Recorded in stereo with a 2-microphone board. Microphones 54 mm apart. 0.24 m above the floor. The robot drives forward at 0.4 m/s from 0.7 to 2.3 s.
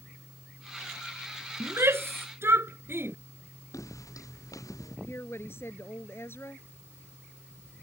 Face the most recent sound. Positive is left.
turn(degrees=45)  # may be behind; listen again after turning